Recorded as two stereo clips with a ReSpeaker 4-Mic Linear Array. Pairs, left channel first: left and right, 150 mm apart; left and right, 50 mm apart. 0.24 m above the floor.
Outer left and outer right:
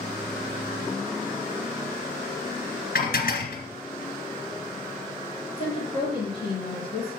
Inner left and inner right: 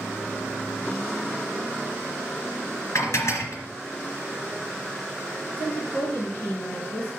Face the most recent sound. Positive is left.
turn(degrees=25)  # may be behind; listen again after turning